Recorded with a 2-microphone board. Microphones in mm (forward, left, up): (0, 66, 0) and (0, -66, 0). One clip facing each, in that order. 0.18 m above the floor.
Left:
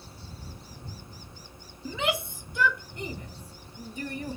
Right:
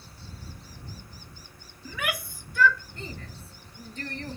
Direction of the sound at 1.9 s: 25° left (ahead or behind).